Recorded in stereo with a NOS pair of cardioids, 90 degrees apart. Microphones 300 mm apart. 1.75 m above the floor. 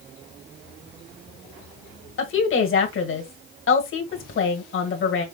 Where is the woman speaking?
45° left, 1.6 m.